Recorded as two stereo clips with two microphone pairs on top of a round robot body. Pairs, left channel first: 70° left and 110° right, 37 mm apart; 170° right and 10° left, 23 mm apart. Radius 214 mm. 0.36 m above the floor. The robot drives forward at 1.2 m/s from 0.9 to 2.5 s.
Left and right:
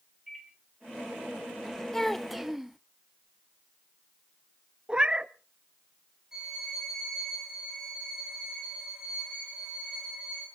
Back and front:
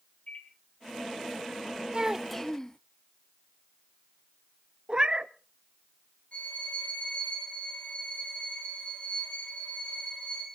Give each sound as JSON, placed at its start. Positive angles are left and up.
{"t": 0.3, "sound": "a microwave", "azimuth_deg": 165, "distance_m": 3.5}
{"t": 1.9, "sound": "a child speaking", "azimuth_deg": 25, "distance_m": 0.8}
{"t": 4.9, "sound": "a cat meowing", "azimuth_deg": -45, "distance_m": 0.7}
{"t": 6.3, "sound": "a violin", "azimuth_deg": 175, "distance_m": 8.0}